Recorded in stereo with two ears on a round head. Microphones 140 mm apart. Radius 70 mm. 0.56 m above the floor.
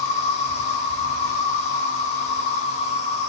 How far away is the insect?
About 3 m.